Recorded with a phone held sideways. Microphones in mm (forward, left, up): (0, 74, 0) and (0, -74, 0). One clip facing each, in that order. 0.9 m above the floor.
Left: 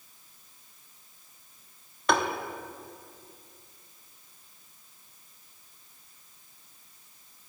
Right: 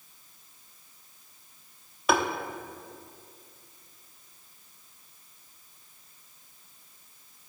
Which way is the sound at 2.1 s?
5° right (ahead or behind).